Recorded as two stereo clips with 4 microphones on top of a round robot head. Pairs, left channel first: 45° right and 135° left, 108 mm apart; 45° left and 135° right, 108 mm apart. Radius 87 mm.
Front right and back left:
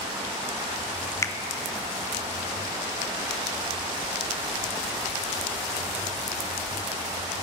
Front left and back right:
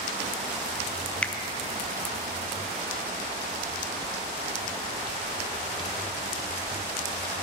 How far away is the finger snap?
About 0.8 m.